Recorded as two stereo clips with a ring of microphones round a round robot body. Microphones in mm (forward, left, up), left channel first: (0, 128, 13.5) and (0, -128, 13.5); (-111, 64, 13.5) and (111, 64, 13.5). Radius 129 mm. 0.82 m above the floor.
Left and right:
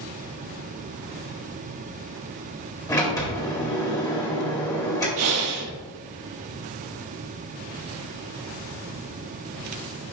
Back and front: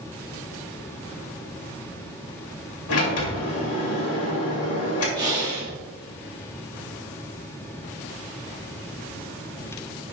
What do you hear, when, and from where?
2.9 s a sliding door: 170° left, 2.5 m
5.2 s breathing: 75° right, 1.5 m